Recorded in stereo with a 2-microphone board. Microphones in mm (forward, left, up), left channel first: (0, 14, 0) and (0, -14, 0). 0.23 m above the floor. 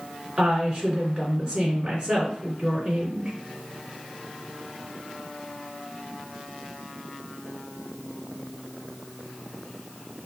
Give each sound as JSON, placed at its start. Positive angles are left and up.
{"t": 0.4, "sound": "a woman speaking", "side_deg": -35, "distance_m": 2.5}